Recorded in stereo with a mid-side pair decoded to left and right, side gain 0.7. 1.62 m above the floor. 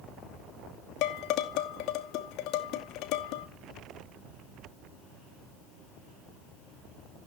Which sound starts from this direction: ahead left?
Dishes clattering, at 1.0 s.